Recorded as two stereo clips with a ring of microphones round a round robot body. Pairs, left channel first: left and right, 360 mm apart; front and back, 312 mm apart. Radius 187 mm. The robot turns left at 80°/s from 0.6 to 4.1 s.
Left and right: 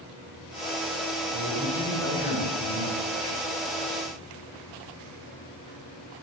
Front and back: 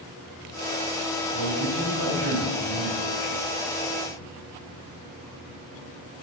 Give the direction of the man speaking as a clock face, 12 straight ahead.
5 o'clock.